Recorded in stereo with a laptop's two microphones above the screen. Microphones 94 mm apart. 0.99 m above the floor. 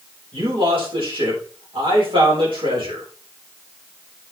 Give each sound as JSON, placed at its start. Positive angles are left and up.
{"t": 0.3, "sound": "a man speaking", "side_deg": -60, "distance_m": 3.5}